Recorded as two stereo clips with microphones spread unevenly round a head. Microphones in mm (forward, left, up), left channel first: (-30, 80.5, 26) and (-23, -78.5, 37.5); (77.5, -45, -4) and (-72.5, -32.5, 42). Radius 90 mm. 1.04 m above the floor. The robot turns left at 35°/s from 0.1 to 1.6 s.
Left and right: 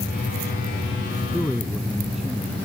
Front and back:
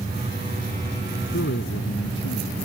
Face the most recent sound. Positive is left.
turn(degrees=0)